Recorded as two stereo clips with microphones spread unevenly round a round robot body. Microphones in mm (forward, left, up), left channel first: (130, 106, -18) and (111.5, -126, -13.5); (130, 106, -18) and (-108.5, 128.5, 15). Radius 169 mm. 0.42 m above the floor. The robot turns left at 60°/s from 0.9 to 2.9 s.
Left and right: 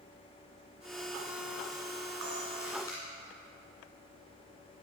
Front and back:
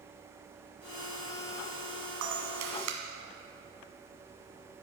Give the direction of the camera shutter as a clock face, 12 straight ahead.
5 o'clock.